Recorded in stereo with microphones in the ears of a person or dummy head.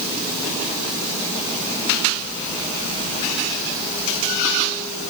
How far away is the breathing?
No breathing in this recording.